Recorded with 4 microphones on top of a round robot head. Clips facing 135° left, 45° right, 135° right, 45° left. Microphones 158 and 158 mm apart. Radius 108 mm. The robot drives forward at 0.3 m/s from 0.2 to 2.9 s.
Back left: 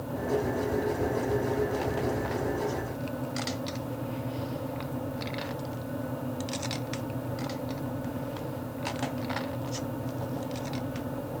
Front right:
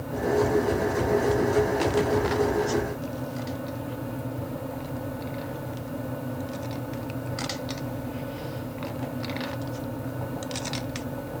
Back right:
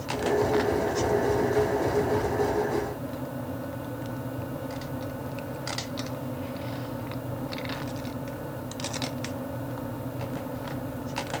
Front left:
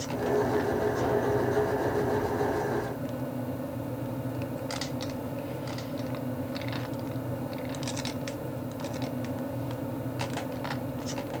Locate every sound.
Only background noise.